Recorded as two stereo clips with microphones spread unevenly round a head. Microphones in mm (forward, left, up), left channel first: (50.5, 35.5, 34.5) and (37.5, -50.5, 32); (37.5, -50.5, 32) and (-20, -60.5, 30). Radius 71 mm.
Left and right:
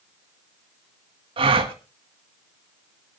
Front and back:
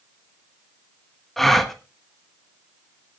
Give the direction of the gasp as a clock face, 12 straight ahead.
3 o'clock.